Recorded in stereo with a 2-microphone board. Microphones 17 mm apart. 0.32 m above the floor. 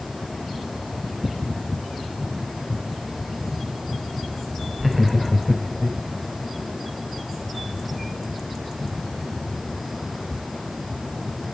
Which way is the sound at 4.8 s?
5° right (ahead or behind).